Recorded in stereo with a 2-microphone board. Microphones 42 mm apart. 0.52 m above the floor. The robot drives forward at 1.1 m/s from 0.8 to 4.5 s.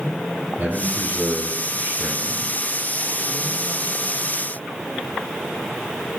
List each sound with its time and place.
0.6 s a man speaking: 30° right (ahead or behind), 5 m; by 2.6 s 45° right (ahead or behind), 3.5 m